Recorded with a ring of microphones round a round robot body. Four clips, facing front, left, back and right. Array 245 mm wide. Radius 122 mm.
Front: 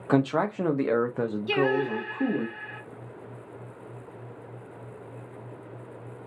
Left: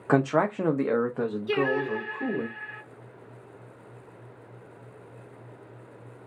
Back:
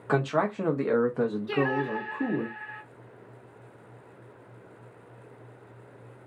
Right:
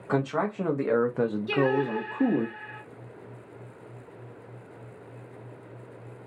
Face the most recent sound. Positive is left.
turn(degrees=-5)